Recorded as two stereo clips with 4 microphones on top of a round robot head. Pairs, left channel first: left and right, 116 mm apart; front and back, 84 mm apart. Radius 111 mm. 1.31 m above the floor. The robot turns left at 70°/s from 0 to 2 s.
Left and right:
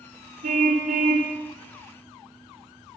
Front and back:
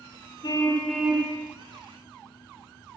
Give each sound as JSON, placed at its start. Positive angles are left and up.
{"t": 0.4, "sound": "a car horn", "azimuth_deg": -55, "distance_m": 2.5}